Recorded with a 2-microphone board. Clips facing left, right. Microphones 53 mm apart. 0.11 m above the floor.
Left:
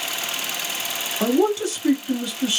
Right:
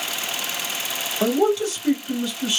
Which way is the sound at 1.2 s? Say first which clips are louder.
Even; 15° left (ahead or behind).